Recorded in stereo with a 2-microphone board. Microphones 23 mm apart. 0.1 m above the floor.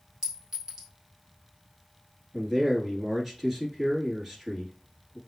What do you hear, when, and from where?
0.2 s a clink: 20° right (ahead or behind), 1.6 m
2.3 s a man speaking: 5° right (ahead or behind), 1.5 m